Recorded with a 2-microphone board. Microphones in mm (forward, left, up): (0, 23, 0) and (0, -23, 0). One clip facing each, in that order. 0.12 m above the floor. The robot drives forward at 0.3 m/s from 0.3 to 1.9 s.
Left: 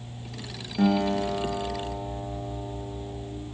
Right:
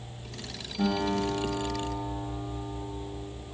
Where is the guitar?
50° left (ahead or behind), 2.5 m.